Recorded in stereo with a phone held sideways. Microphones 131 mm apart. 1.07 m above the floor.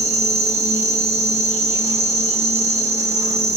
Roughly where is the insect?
Right.